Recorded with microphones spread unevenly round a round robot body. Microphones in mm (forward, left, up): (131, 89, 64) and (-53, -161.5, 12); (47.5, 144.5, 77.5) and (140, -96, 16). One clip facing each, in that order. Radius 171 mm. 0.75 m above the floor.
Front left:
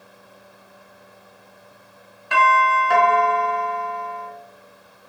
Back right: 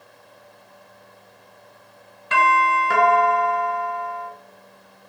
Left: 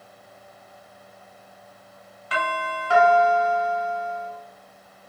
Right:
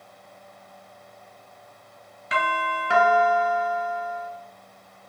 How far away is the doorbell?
About 1.0 m.